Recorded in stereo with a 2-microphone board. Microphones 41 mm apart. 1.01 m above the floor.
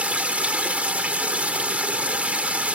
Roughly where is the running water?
Right.